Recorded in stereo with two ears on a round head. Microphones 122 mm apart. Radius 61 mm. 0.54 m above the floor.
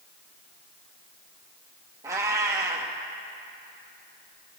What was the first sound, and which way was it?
A cat meowing, 20° right (ahead or behind).